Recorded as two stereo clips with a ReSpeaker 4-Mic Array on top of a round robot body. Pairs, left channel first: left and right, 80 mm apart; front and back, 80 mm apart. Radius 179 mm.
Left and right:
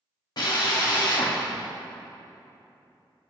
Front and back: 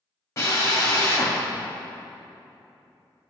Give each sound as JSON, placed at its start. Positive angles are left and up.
{"t": 0.4, "sound": "a drill", "azimuth_deg": 50, "distance_m": 1.5}